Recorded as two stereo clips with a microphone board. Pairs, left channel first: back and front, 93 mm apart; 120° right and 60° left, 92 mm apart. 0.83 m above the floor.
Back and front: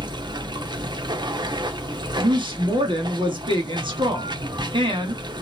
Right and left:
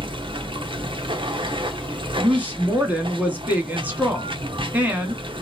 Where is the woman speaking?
10° right, 2.0 m.